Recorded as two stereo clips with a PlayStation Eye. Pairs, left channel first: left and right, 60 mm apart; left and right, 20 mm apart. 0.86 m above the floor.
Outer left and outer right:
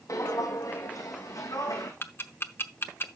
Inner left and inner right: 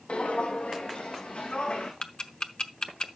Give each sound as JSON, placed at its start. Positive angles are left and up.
{"t": 0.1, "sound": "footsteps", "side_deg": 65, "distance_m": 2.0}
{"t": 2.0, "sound": "ticking", "side_deg": 40, "distance_m": 0.8}